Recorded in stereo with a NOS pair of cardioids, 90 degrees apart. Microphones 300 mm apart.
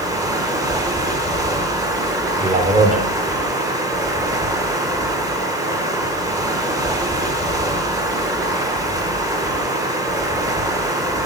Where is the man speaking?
25° right, 1.2 m.